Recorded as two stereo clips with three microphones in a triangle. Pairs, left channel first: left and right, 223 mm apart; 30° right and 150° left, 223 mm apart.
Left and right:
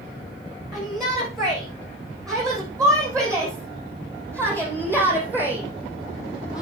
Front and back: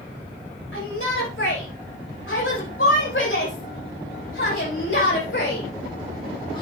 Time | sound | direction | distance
0.7 | a shout | 20° right | 7.5 m